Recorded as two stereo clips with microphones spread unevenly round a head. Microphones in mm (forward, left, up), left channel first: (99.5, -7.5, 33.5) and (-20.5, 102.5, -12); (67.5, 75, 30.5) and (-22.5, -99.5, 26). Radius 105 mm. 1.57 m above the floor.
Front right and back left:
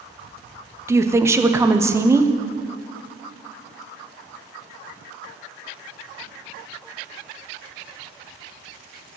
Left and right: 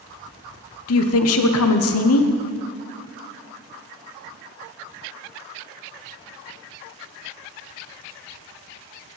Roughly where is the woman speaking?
Ahead left.